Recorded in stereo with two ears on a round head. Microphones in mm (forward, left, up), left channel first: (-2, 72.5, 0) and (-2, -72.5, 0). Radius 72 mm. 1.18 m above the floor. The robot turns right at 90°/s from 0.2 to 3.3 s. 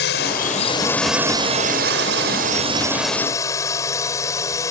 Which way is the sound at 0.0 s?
100° left.